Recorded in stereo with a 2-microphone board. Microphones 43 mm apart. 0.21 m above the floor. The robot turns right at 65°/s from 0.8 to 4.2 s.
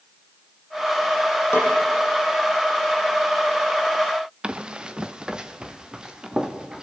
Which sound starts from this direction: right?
Running footsteps, at 4.4 s.